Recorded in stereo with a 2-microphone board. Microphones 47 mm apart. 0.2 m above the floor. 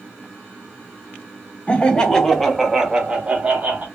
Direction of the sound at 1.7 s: 25° left (ahead or behind).